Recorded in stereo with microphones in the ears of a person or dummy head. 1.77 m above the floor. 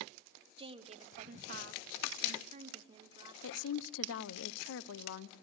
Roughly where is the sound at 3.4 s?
Left.